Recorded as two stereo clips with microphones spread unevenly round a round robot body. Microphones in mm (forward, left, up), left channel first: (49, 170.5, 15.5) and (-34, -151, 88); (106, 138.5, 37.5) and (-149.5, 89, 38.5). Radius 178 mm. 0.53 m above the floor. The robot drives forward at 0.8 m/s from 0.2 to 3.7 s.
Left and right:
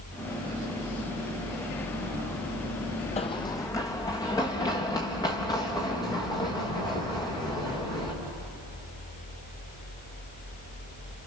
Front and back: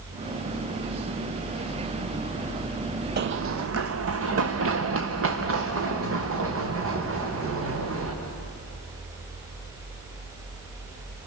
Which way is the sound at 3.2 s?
155° left.